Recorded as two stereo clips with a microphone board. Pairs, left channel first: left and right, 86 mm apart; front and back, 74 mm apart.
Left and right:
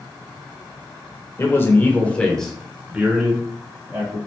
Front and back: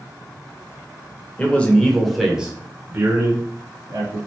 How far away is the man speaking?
About 1.0 m.